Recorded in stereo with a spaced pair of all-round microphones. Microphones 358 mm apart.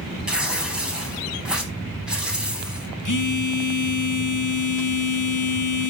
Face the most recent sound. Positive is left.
turn(degrees=55)  # may be behind; listen again after turning